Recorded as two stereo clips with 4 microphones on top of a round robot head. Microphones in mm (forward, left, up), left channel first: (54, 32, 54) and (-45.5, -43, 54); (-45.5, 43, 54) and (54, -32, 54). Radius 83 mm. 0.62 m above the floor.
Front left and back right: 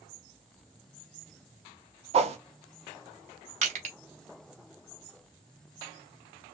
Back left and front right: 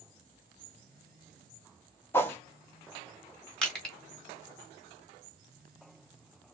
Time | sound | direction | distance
2.1 | a whoosh | 150° right | 1.2 m
3.6 | crushing | 135° right | 1.8 m